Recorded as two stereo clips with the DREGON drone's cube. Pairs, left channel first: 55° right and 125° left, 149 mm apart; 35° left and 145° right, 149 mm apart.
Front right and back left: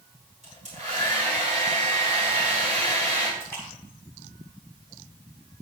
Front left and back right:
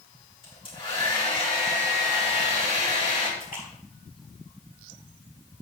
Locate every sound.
0.4 s a hair dryer: 90° left, 5 m
3.4 s a splash: 20° left, 5 m